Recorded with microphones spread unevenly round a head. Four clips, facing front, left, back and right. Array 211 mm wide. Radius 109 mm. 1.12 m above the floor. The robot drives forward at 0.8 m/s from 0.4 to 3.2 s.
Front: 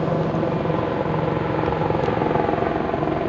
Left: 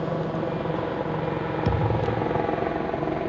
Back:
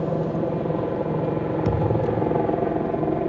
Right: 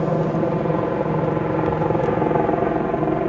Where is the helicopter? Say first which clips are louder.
Right 7 dB, front 3 dB; 80° right; by 3.3 s 105° right.